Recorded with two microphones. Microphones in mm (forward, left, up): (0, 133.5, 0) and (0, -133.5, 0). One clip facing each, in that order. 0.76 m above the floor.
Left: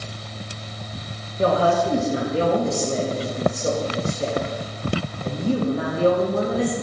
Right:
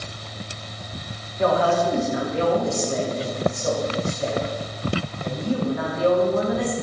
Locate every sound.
1.4 s a woman speaking: 30° left (ahead or behind), 1.1 m